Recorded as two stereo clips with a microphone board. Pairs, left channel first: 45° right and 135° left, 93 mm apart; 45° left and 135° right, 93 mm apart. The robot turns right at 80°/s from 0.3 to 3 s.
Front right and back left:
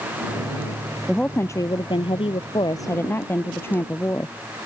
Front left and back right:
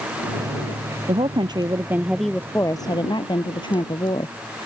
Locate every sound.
1.1 s a woman speaking: 135° right; by 4.4 s 20° left